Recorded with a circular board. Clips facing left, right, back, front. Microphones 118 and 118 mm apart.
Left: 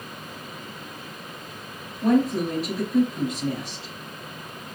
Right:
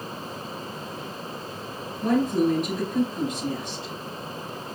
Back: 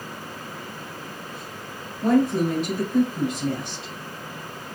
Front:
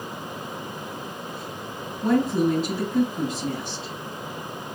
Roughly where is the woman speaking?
Behind left.